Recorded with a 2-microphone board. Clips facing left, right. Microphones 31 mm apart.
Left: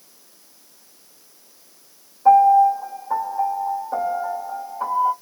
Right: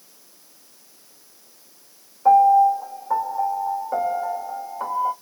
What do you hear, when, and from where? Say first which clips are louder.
2.2 s a piano: left 1 dB; 15° right (ahead or behind), 1.5 m